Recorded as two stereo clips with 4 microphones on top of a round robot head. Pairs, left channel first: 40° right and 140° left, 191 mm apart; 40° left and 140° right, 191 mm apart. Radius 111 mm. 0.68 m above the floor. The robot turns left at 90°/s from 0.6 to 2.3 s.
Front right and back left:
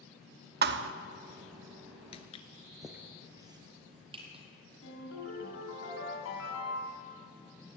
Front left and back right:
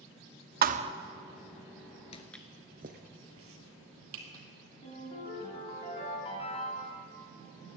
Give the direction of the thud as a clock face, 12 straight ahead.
6 o'clock.